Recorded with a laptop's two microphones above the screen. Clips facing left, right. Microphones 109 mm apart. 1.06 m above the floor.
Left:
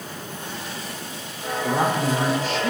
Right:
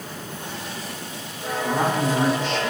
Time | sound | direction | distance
1.6 | a woman speaking | 10° left (ahead or behind) | 3.5 m